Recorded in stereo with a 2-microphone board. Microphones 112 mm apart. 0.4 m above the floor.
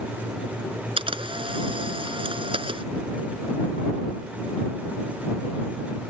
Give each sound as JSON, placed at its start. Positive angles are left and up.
{"t": 1.0, "sound": "a camera shutter", "side_deg": -50}